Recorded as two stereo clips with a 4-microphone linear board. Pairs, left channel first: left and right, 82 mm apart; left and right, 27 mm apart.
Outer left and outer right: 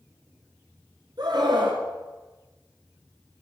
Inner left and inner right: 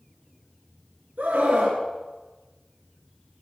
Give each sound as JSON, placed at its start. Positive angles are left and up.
{"t": 1.2, "sound": "a scream", "side_deg": -65, "distance_m": 2.5}